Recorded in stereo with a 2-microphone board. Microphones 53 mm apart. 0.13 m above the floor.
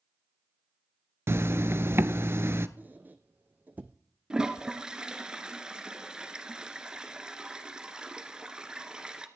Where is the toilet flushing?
15° right (ahead or behind), 1.2 m.